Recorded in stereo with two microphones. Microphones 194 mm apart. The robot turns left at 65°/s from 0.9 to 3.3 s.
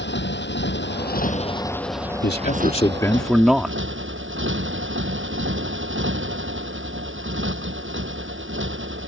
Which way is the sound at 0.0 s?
65° left.